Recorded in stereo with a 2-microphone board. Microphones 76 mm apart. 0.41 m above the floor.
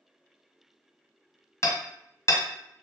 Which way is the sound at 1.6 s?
40° left (ahead or behind).